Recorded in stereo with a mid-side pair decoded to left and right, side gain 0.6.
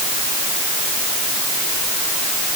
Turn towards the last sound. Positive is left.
No sound to turn to.